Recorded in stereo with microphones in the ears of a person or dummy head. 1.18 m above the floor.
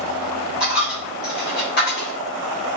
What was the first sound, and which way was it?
A dropped coin, 40° left (ahead or behind).